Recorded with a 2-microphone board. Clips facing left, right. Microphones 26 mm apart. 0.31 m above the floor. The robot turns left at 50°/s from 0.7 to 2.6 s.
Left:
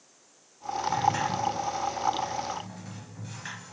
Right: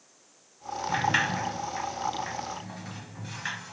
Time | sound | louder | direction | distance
0.9 | a sliding door | right 1 dB | 55° right (ahead or behind) | 0.9 m